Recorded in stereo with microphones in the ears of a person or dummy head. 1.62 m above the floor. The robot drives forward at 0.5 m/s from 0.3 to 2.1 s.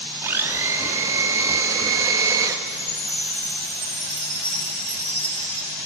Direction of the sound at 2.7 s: 20° right (ahead or behind).